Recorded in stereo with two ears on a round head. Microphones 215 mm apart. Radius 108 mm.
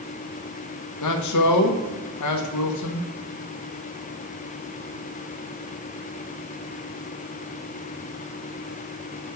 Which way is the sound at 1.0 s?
80° left.